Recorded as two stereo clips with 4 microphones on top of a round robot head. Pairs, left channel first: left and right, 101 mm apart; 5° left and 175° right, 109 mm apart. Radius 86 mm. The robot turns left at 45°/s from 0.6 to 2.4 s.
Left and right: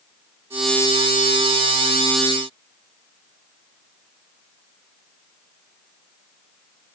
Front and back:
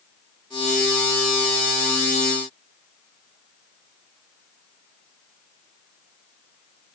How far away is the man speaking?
I don't hear a man speaking.